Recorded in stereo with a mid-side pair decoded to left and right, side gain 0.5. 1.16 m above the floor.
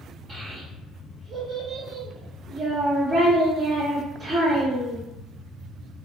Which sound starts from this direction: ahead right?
A child speaking, at 0.3 s.